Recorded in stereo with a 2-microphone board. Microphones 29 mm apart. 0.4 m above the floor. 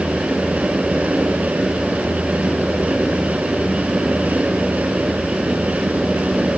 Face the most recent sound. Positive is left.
No sound to turn to.